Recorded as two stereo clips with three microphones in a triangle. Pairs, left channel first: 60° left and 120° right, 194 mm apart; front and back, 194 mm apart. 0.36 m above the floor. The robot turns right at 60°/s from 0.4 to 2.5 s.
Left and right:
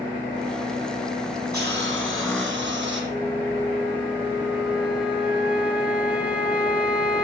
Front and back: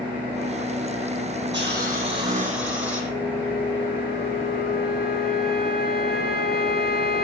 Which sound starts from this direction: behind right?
A hiss, at 1.5 s.